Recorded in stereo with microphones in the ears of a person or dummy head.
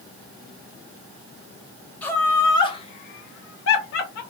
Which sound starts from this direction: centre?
Laughter, at 2.0 s.